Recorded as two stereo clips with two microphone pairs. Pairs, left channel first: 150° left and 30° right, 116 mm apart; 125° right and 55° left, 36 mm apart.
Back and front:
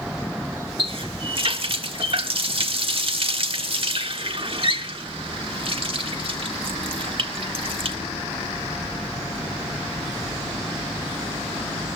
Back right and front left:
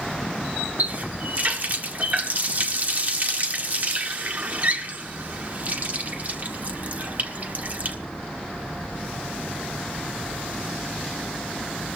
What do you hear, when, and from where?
0.8 s a running tap: 10° left, 1.5 m